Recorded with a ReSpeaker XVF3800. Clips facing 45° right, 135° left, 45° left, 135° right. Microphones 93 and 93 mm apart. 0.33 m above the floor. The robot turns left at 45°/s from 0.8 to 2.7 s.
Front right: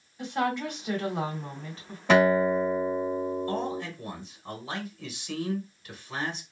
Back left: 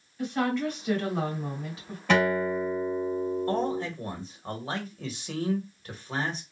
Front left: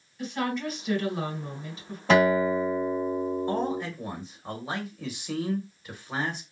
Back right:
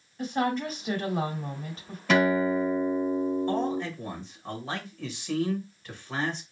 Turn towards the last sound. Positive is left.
turn(degrees=120)